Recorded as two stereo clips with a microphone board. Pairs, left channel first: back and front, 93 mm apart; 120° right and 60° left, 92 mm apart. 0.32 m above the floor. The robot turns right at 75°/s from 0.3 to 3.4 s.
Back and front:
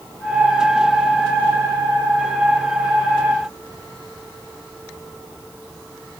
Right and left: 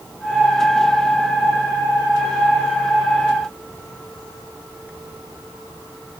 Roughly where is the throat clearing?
No throat clearing in this recording.